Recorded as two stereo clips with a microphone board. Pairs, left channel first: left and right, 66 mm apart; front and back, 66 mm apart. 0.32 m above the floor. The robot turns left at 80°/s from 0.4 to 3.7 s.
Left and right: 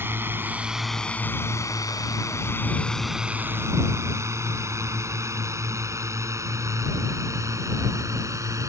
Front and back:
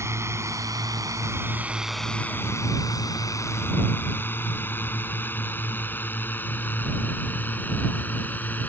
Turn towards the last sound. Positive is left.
turn(degrees=-60)